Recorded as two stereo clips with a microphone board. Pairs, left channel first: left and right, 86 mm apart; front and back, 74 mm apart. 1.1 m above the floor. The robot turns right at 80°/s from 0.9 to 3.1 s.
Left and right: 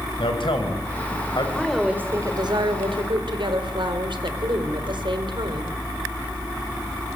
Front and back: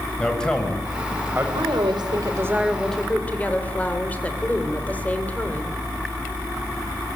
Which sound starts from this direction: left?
A man speaking, at 0.2 s.